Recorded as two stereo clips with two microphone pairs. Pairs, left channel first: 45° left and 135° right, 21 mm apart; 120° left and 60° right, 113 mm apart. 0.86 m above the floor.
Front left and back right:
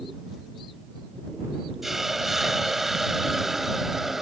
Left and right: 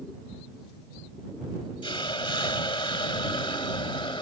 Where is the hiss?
150° left.